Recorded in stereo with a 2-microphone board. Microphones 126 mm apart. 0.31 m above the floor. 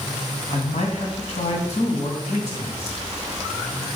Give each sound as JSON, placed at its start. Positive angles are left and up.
{"t": 0.5, "sound": "a man speaking", "side_deg": 60, "distance_m": 2.5}